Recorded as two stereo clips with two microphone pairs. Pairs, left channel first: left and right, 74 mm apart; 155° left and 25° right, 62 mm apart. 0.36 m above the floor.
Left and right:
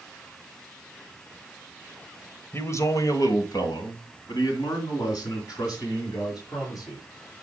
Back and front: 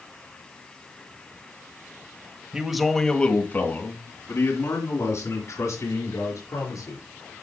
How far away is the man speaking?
About 1.5 m.